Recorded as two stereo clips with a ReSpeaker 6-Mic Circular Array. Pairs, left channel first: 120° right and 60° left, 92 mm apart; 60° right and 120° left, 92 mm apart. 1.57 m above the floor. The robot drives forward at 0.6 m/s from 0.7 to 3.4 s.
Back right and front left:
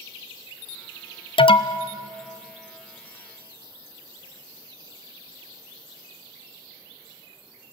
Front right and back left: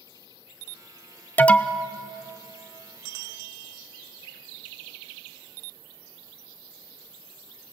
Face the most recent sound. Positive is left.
turn(degrees=-165)